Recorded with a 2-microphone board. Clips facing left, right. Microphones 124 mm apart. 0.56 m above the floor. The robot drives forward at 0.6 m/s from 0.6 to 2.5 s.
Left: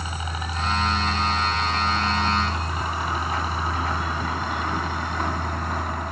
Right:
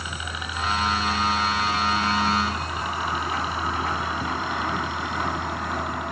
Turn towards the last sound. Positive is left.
turn(degrees=45)  # may be behind; listen again after turning